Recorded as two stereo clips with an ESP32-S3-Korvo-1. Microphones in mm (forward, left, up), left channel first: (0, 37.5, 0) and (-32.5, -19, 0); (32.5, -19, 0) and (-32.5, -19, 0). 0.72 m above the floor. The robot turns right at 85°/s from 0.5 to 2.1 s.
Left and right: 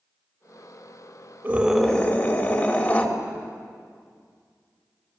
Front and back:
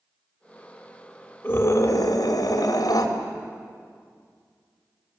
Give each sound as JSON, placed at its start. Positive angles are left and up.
{"t": 1.4, "sound": "a scream", "azimuth_deg": -55, "distance_m": 4.0}